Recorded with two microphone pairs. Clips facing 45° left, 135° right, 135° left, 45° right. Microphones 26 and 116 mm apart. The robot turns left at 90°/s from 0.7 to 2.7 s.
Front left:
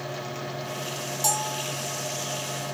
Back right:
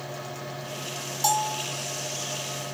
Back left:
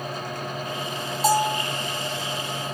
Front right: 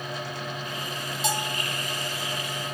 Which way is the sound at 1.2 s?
170° left.